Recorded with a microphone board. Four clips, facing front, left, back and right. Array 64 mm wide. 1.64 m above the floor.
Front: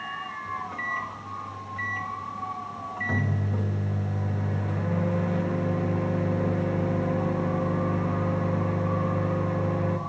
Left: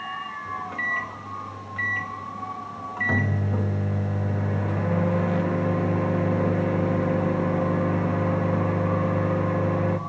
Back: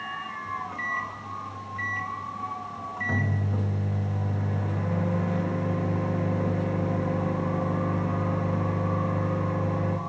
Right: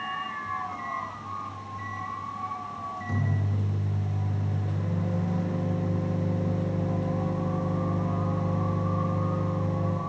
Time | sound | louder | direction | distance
0.5 | a microwave | left 3 dB, even | 90° left | 2.5 m